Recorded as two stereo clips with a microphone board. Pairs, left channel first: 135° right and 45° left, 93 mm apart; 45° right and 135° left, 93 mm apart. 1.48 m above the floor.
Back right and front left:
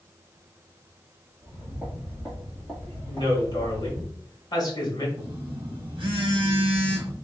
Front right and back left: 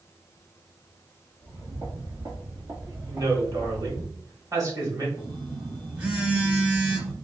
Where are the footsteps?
135° left, 1.8 m; by 4.1 s 170° left, 3.5 m.